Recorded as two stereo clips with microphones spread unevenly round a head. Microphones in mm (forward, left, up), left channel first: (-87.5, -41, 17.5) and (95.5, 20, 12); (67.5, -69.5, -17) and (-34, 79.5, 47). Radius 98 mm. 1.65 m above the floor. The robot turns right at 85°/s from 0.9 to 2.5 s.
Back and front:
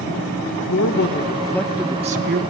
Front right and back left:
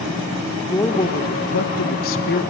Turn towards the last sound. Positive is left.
turn(degrees=-5)